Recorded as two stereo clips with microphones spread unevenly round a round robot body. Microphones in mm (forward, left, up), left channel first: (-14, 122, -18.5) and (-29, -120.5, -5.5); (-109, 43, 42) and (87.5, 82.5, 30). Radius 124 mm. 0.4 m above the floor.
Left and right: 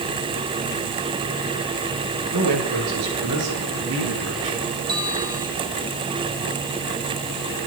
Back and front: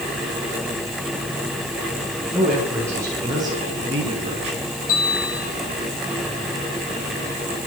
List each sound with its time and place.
2.3 s a man speaking: 70° right, 8 m; by 4.7 s 50° right, 6.5 m
4.9 s a bell: 170° right, 8.5 m